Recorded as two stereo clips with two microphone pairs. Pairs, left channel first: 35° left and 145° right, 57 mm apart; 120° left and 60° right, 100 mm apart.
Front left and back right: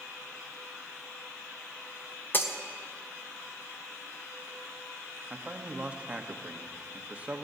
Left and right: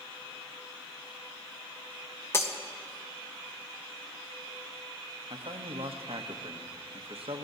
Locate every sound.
2.3 s breaking glass: 65° left, 0.9 m
5.3 s a man speaking: 75° right, 0.9 m